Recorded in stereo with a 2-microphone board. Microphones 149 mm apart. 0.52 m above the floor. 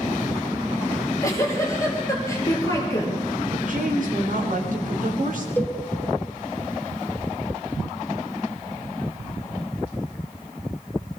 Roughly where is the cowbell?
Centre.